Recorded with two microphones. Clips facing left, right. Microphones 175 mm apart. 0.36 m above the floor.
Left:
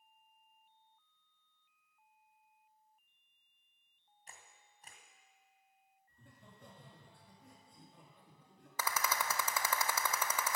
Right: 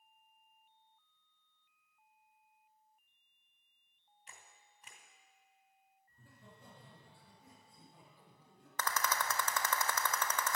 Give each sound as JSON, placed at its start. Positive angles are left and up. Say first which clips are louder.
{"t": 4.3, "sound": "a camera shutter", "louder": "left 1 dB", "side_deg": 40, "distance_m": 1.9}
{"t": 6.1, "sound": "laughter", "louder": "right 1 dB", "side_deg": -5, "distance_m": 4.5}
{"t": 8.8, "sound": "a rattle", "louder": "even", "side_deg": 10, "distance_m": 0.7}